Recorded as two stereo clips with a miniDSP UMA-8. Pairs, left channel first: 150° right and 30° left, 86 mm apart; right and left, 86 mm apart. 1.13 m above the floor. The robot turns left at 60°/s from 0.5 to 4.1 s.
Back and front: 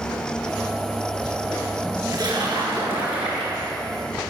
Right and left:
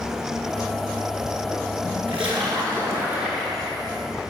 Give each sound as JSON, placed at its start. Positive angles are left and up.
{"t": 2.1, "sound": "a splash", "azimuth_deg": 85, "distance_m": 9.5}